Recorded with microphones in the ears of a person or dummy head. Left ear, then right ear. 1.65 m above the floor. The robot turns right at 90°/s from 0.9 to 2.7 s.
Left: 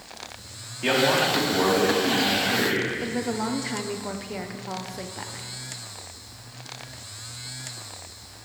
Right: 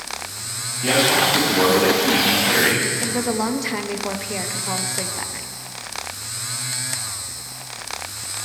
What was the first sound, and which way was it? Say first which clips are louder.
A man speaking: right 4 dB; 125° left.